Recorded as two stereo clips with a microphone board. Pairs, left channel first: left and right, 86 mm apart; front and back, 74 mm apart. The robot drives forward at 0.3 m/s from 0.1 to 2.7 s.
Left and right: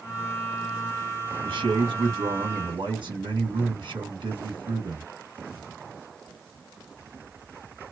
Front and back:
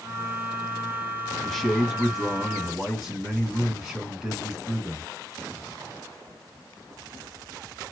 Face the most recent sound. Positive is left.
turn(degrees=-100)